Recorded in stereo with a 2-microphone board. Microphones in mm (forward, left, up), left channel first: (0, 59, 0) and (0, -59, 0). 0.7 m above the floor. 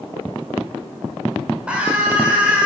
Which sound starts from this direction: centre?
A scream, at 1.7 s.